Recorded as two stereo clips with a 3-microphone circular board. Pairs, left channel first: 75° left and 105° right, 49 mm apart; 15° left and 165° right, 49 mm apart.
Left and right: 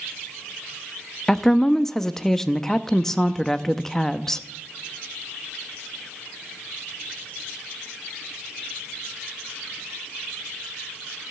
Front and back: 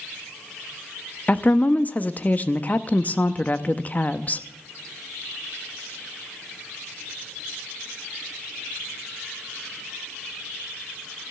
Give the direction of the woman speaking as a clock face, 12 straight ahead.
12 o'clock.